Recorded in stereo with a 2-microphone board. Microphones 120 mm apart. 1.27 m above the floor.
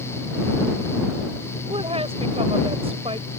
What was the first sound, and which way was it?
A woman speaking, 55° right (ahead or behind).